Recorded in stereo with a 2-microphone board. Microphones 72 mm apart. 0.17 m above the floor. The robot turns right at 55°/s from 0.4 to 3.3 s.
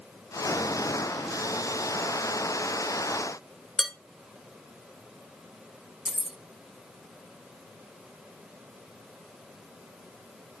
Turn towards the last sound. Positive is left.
turn(degrees=-15)  # may be behind; listen again after turning